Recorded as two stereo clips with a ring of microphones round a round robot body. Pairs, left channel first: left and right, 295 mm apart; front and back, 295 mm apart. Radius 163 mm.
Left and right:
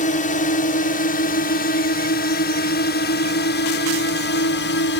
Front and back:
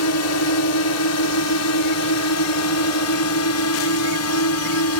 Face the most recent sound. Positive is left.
turn(degrees=35)